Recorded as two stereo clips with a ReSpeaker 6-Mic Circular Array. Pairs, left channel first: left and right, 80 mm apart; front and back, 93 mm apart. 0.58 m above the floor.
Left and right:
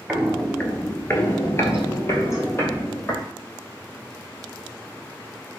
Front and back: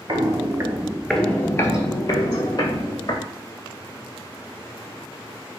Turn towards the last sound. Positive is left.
turn(degrees=30)